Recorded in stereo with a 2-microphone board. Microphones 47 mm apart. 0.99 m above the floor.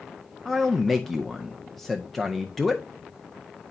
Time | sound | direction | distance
0.5 | a man speaking | 5° left (ahead or behind) | 0.5 m